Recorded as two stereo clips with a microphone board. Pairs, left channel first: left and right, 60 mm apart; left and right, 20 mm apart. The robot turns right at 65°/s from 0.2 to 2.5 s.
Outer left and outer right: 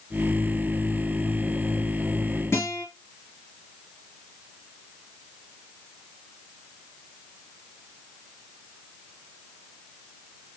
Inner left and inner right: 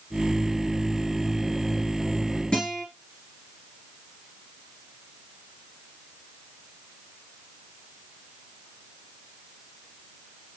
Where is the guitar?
45° left (ahead or behind), 2.5 m.